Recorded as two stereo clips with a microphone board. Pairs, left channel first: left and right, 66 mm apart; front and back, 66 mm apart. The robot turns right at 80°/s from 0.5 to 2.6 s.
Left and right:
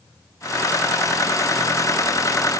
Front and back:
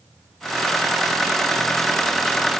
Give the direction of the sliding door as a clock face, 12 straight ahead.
I don't hear a sliding door.